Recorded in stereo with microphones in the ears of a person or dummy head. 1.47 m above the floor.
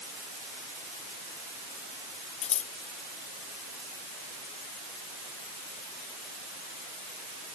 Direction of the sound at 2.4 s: 40° left (ahead or behind).